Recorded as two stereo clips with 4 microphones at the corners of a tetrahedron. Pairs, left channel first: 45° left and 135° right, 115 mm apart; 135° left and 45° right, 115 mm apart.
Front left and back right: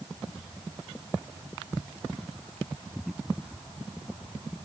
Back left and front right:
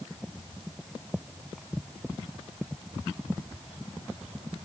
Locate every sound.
Only background noise.